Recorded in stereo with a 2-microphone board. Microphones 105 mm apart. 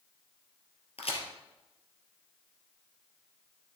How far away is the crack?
About 2 m.